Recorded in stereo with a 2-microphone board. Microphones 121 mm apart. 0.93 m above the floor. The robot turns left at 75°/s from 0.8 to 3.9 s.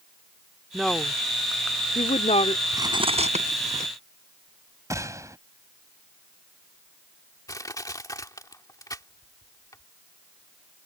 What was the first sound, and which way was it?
A woman speaking, centre (ahead or behind).